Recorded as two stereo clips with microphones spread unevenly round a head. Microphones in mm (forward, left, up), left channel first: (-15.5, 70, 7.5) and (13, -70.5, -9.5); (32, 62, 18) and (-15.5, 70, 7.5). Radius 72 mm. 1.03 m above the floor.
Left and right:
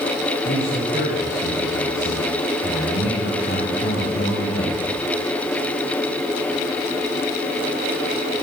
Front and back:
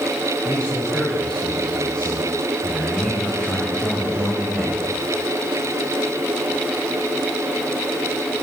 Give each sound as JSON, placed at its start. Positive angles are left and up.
{"t": 0.5, "sound": "a man speaking", "azimuth_deg": 65, "distance_m": 8.0}